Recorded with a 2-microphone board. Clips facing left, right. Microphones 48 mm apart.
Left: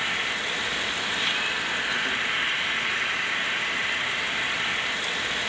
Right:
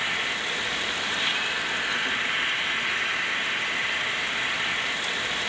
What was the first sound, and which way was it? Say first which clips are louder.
An insect: even; centre (ahead or behind).